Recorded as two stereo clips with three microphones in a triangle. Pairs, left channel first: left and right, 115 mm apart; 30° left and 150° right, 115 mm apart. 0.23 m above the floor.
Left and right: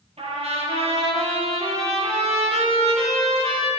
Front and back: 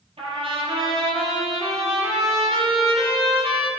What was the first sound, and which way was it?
A trumpet, 115° right.